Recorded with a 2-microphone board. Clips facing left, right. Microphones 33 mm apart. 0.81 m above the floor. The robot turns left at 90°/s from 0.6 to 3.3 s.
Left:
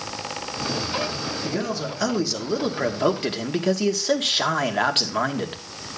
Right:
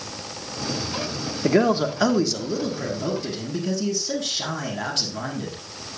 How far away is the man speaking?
About 1.8 m.